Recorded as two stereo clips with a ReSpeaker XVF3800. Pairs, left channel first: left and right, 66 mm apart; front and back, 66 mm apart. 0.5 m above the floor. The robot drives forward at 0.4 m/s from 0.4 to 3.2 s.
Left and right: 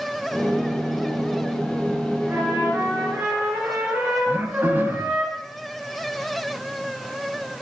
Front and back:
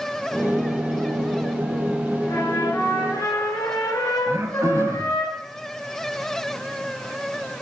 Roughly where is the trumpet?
Ahead right.